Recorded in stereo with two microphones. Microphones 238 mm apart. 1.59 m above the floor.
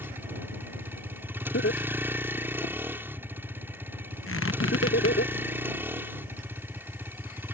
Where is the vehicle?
10° right (ahead or behind).